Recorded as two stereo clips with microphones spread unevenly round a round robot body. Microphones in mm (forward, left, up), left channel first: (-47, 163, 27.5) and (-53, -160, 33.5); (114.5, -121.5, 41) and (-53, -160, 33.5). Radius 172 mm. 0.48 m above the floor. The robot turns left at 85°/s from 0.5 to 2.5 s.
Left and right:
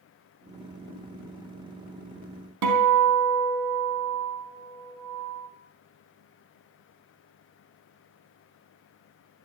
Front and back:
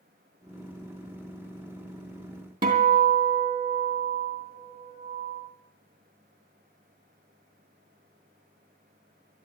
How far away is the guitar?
About 3.5 m.